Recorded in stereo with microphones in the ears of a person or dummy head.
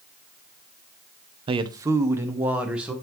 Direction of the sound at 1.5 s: 25° right (ahead or behind).